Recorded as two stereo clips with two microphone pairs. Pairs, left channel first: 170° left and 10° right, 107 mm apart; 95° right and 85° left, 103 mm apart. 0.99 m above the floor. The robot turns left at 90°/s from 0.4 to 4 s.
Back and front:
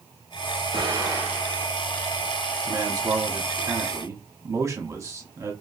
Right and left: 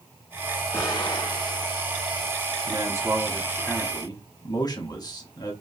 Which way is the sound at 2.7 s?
60° left.